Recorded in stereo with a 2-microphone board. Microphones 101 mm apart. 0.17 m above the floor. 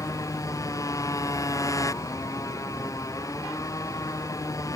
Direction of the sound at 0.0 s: 30° left (ahead or behind).